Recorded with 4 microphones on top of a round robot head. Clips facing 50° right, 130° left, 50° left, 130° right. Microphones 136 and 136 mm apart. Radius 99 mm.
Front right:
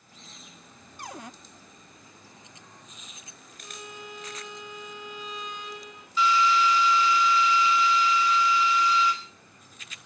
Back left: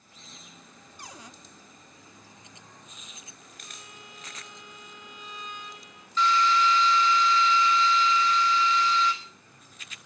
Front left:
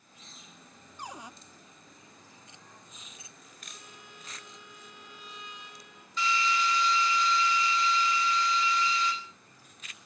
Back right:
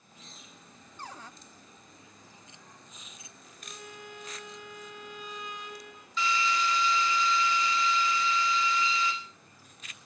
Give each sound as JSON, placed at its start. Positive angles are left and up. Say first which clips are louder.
{"t": 1.0, "sound": "a cupboard door", "louder": "front right 7 dB, front left 2 dB", "azimuth_deg": -25, "distance_m": 0.8}
{"t": 3.6, "sound": "a violin", "louder": "front right 9 dB, back right 9 dB", "azimuth_deg": -80, "distance_m": 1.7}
{"t": 6.2, "sound": "a drill", "louder": "front right 1 dB, even", "azimuth_deg": -135, "distance_m": 5.0}